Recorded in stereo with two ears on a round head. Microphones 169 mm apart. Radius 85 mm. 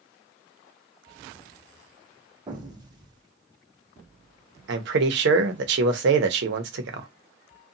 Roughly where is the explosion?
Right.